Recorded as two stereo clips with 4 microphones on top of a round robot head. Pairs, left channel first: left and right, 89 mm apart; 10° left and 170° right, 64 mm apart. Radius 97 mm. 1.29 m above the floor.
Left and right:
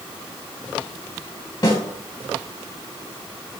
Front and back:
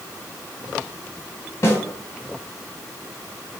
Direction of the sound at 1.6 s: 45° left.